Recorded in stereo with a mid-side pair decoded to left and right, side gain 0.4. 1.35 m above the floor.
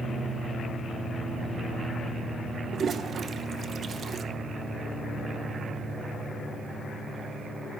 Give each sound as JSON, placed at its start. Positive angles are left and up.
{"t": 2.7, "sound": "a toilet flushing", "azimuth_deg": -60, "distance_m": 0.8}